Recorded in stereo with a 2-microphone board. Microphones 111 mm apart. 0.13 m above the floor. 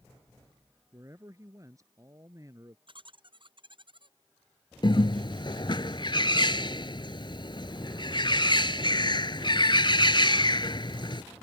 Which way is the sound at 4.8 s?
45° left (ahead or behind).